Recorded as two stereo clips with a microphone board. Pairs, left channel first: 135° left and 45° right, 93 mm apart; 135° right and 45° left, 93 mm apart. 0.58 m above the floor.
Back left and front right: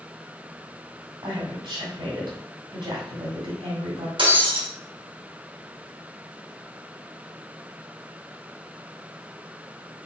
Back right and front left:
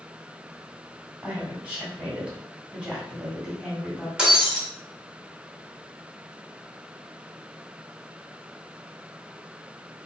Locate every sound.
1.2 s a woman speaking: 30° right, 1.8 m
4.2 s breaking glass: 40° right, 1.3 m